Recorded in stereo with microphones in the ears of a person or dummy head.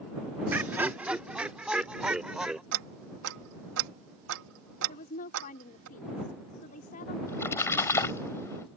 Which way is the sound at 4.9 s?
40° left (ahead or behind).